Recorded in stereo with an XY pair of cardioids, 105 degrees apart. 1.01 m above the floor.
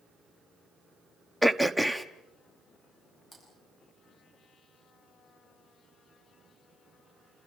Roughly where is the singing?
No singing in this recording.